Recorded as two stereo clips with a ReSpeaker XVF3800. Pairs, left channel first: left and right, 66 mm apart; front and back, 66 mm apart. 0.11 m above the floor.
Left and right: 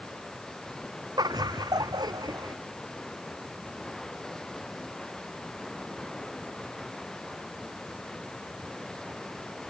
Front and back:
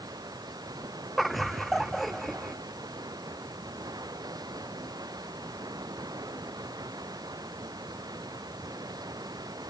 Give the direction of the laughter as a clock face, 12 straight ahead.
3 o'clock.